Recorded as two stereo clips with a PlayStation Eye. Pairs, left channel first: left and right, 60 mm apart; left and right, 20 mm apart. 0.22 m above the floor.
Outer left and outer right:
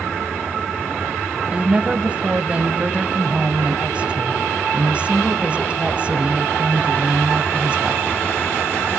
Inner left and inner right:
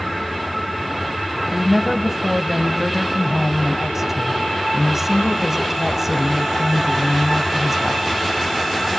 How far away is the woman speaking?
About 1.0 m.